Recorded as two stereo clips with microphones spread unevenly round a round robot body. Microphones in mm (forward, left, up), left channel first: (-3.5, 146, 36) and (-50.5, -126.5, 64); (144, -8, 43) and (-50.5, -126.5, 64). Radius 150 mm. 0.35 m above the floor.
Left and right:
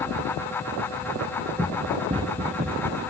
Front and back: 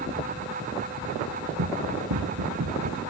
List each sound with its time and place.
1.6 s running footsteps: straight behind; by 3.0 s 150° right